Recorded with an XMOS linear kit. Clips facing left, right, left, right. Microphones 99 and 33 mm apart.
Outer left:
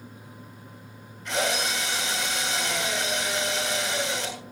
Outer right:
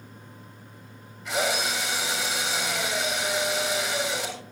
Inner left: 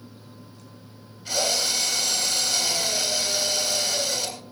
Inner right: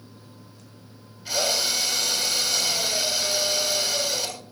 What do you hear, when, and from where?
1.2 s a drill: 5° right (ahead or behind), 7 m